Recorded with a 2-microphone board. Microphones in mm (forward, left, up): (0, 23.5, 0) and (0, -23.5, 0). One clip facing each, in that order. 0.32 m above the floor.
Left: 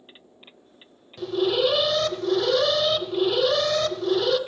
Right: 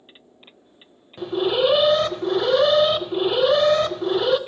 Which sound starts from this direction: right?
An alarm, at 1.2 s.